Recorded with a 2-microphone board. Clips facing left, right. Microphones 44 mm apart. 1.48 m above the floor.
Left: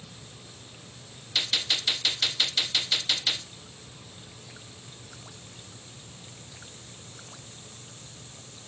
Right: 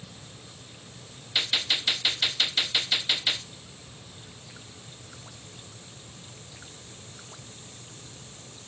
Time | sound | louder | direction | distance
1.4 | a gunshot | right 1 dB | 15° right (ahead or behind) | 0.9 m